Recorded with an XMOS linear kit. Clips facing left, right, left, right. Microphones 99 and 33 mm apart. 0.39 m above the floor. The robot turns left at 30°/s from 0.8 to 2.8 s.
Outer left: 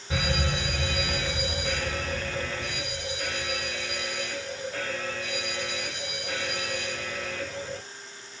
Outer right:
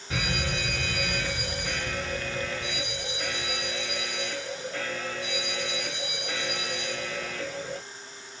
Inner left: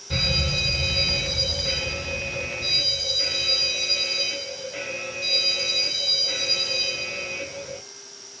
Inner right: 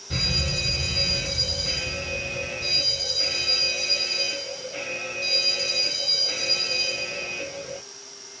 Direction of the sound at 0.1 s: 25° left.